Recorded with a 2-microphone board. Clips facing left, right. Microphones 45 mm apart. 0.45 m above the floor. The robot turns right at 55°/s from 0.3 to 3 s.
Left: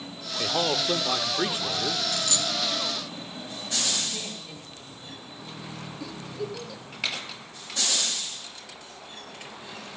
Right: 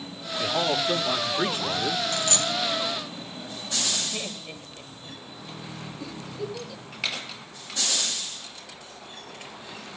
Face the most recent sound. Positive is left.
turn(degrees=-5)  # may be behind; listen again after turning